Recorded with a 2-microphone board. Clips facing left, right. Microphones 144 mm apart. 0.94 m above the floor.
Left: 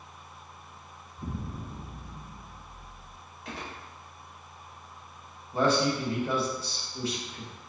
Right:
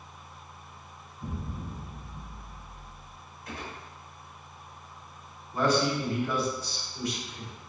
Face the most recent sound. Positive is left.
turn(degrees=30)  # may be behind; listen again after turning